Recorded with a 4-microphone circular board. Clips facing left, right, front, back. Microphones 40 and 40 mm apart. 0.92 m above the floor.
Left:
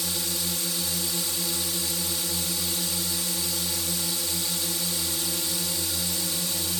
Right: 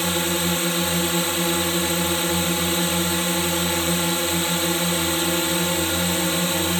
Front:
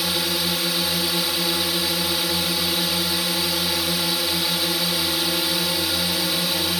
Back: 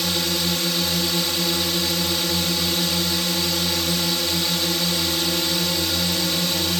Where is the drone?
80° right.